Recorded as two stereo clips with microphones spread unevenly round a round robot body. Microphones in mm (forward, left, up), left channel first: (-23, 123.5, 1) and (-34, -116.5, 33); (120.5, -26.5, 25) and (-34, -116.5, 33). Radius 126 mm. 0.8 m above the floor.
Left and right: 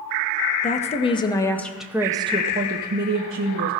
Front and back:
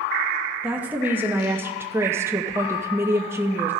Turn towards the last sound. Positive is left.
turn(degrees=-75)